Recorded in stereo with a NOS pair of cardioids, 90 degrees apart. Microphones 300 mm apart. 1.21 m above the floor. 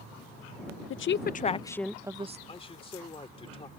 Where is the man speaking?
20° left.